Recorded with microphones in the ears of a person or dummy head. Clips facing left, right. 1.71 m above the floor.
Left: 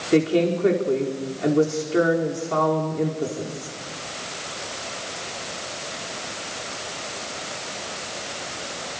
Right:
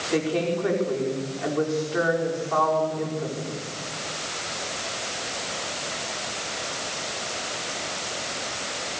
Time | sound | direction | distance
0.1 | a woman speaking | 40° left (ahead or behind) | 4.5 m